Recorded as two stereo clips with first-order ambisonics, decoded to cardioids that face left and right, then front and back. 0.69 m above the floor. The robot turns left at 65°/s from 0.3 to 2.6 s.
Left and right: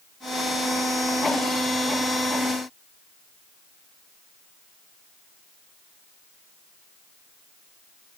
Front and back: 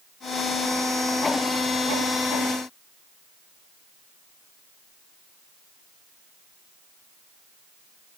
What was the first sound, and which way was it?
Only background noise.